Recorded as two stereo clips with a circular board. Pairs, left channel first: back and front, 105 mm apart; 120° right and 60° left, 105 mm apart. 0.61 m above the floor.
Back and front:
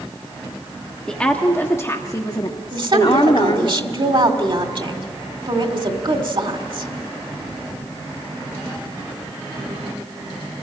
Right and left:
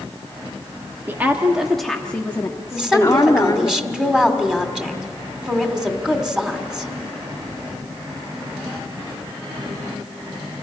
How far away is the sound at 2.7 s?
About 1.7 m.